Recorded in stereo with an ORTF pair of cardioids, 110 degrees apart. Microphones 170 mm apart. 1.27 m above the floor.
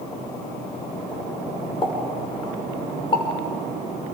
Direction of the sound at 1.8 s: 30° left.